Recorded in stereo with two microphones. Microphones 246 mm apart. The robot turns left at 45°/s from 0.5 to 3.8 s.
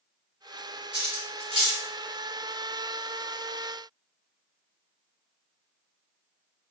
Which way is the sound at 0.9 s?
45° right (ahead or behind).